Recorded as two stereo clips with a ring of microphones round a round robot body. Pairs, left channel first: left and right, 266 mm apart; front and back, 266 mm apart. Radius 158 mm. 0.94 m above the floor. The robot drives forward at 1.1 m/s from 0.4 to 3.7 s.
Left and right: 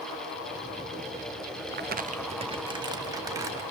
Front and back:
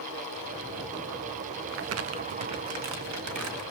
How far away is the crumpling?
About 0.8 m.